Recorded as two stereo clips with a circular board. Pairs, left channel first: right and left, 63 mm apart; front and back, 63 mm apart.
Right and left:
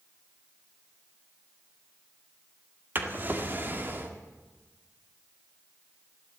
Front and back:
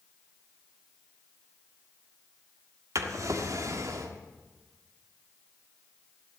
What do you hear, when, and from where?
3.0 s a drawer: 150° left, 1.5 m